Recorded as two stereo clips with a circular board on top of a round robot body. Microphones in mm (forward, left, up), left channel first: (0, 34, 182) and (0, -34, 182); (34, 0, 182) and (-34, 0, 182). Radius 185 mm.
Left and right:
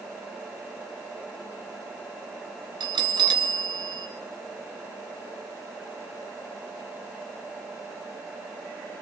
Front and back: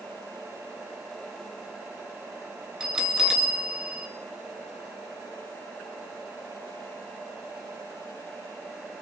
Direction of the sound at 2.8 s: 100° right.